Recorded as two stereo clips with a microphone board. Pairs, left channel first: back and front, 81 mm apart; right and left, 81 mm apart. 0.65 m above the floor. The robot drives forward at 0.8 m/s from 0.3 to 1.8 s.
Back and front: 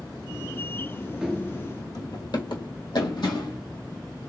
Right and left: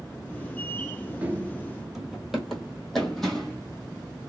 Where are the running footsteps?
75° left, 0.6 m; by 3.6 s 170° right, 1.7 m.